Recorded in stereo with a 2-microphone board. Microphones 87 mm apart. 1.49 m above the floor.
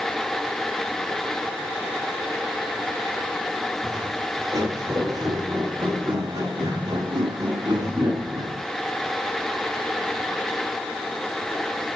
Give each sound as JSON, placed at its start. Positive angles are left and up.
{"t": 3.8, "sound": "footsteps", "side_deg": -40, "distance_m": 3.5}